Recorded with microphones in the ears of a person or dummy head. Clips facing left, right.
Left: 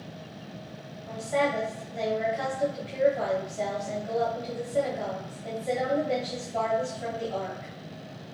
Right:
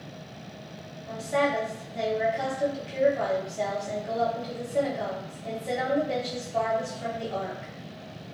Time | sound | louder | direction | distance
1.1 | a woman speaking | right 1 dB | centre (ahead or behind) | 0.9 m